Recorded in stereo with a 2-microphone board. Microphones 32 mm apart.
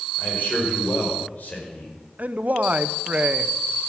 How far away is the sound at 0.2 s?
About 5.5 m.